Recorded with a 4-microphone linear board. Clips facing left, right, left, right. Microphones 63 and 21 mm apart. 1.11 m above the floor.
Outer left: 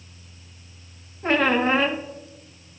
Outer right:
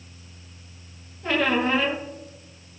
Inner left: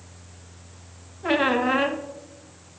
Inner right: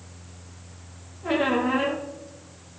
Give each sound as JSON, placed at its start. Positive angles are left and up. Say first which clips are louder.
{"t": 1.2, "sound": "a squeak", "louder": "outer left 2 dB, inner left 2 dB", "side_deg": 40, "distance_m": 1.1}